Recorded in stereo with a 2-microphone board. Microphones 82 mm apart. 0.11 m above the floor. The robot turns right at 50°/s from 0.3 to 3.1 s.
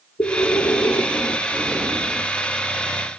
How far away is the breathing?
About 2.5 m.